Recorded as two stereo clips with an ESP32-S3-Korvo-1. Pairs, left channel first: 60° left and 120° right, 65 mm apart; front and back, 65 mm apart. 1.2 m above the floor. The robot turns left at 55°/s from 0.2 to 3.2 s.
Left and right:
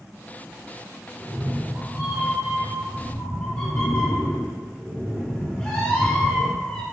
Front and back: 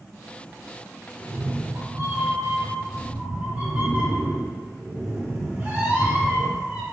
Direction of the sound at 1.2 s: 125° right.